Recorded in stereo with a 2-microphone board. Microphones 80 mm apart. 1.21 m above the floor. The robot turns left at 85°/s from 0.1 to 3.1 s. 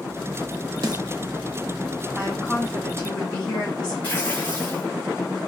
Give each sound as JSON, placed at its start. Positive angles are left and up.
{"t": 0.8, "sound": "a snare drum", "side_deg": -60, "distance_m": 0.7}
{"t": 2.1, "sound": "a woman speaking", "azimuth_deg": -135, "distance_m": 4.0}
{"t": 4.0, "sound": "tearing paper", "side_deg": 25, "distance_m": 4.0}